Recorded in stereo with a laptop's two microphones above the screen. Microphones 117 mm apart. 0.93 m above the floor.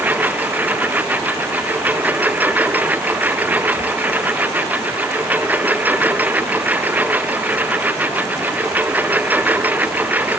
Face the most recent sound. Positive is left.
turn(degrees=-15)  # may be behind; listen again after turning